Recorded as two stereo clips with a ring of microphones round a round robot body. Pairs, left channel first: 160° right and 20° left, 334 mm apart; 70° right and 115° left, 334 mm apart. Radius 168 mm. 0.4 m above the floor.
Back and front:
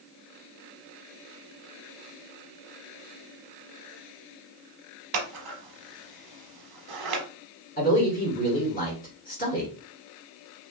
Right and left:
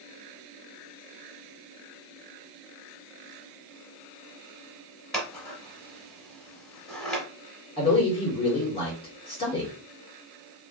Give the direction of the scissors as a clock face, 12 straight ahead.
11 o'clock.